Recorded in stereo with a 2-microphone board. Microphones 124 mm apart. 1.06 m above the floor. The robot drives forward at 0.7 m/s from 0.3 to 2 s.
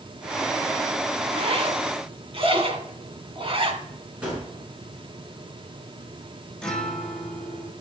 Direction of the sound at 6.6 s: 5° left (ahead or behind).